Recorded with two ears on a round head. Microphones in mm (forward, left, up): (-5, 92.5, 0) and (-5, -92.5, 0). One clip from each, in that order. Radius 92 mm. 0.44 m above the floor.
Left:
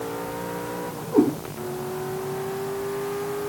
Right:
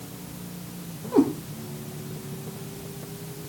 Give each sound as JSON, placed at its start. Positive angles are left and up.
{"t": 1.1, "sound": "a cat meowing", "side_deg": -70, "distance_m": 7.5}